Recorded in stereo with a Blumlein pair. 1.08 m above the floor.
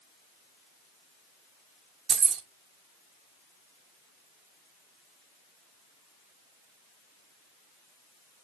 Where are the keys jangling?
25° right, 0.6 m.